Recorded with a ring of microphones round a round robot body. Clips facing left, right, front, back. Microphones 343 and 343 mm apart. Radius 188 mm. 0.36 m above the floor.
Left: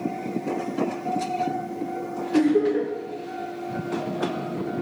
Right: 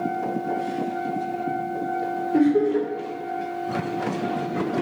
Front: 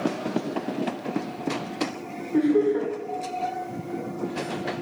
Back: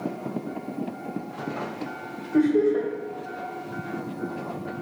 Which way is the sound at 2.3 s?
60° right.